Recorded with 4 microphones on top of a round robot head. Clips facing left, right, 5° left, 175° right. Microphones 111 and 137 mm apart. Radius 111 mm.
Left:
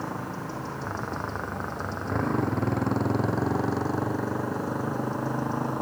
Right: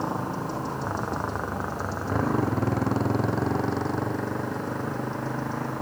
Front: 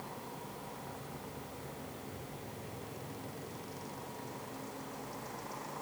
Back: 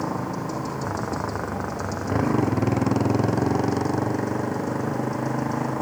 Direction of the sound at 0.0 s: 165° right.